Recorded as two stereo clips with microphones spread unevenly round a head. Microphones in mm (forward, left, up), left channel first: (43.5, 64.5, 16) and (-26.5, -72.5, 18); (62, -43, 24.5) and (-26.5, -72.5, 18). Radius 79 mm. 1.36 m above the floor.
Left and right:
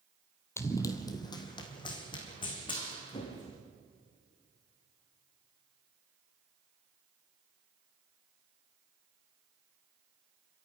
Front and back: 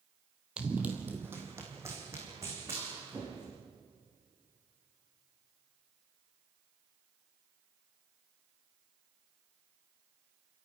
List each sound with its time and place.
0.6 s running footsteps: 120° left, 1.4 m; by 3.6 s 125° left, 5 m